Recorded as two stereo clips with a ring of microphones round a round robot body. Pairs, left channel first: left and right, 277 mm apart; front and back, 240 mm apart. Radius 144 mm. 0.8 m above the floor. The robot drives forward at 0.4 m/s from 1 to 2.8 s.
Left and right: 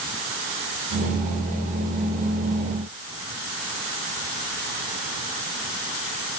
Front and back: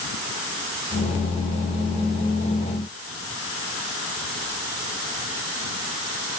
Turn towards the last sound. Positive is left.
No sound to turn to.